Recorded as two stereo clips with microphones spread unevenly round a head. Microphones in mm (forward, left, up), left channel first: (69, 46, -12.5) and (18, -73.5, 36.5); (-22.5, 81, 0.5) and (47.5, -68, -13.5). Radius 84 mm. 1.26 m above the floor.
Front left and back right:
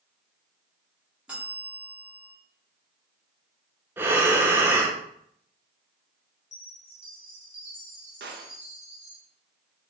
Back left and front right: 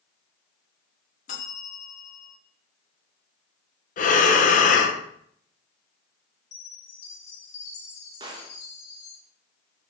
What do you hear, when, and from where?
1.3 s a bell: 165° left, 2 m
4.0 s breathing: 165° left, 0.9 m
6.5 s a chime: 130° left, 3 m
8.2 s a gunshot: 130° right, 1.1 m